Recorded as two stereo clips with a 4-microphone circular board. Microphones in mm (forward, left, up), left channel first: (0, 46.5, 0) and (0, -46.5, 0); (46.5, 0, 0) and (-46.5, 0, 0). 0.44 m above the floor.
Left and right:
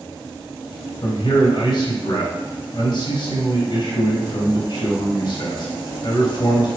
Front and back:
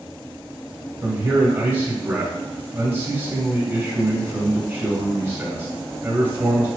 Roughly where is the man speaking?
Behind left.